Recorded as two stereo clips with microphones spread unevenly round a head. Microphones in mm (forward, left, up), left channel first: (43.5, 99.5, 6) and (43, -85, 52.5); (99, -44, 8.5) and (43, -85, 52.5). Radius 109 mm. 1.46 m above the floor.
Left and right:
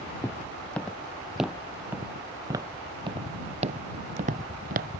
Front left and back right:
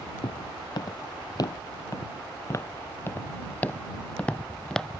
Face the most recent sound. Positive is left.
turn(degrees=-60)